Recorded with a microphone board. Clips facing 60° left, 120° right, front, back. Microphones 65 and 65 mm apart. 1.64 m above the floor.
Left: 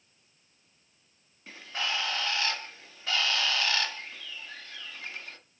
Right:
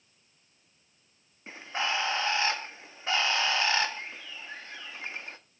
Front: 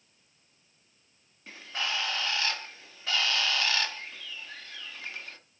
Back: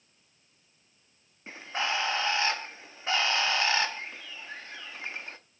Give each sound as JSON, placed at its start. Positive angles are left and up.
{"t": 1.5, "sound": "a bird", "azimuth_deg": -150, "distance_m": 1.2}